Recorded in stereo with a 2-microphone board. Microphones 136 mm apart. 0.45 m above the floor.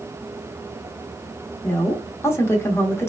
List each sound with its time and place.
1.6 s a woman speaking: 20° left (ahead or behind), 0.7 m